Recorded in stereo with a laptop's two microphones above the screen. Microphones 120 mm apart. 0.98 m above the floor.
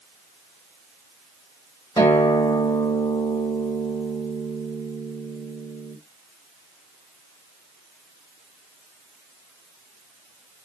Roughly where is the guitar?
Left.